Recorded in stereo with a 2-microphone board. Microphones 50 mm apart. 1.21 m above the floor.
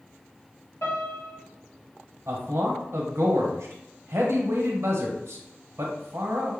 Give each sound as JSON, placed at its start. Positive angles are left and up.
{"t": 0.8, "sound": "a piano", "side_deg": 70, "distance_m": 1.7}
{"t": 2.3, "sound": "a man speaking", "side_deg": -60, "distance_m": 1.1}